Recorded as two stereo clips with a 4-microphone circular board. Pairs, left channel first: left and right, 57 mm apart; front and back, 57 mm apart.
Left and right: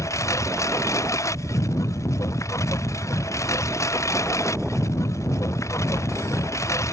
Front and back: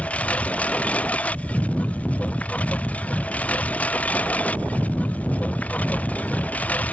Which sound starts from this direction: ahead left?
A lawn mower, at 0.0 s.